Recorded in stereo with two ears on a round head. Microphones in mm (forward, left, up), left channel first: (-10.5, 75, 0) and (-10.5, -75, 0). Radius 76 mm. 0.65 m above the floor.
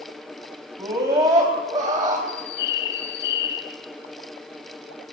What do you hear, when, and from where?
0.8 s a scream: 15° right (ahead or behind), 5 m; by 2.2 s 25° right (ahead or behind), 4.5 m
2.3 s a bird: 80° left, 4.5 m